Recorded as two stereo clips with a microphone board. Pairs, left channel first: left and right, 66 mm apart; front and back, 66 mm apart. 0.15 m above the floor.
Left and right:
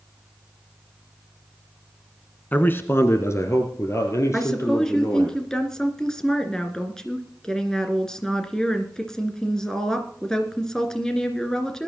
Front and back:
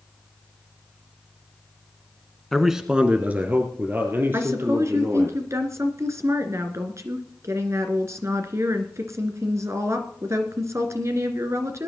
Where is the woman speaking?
170° left, 2 m.